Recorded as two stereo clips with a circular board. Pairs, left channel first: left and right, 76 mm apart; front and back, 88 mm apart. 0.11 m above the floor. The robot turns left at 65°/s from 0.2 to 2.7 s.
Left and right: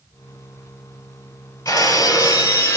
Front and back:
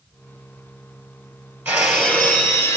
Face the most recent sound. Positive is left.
turn(degrees=45)